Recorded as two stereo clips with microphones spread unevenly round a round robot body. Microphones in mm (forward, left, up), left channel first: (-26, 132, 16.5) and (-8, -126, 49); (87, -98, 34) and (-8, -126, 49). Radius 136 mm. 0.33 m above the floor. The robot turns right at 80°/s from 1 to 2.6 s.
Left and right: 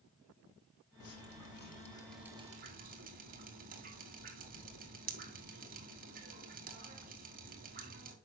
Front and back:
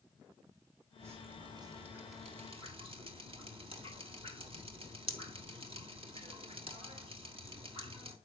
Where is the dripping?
90° left, 3 m; by 8.2 s 145° right, 3 m.